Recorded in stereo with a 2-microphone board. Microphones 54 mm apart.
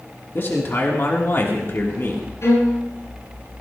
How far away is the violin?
About 9 m.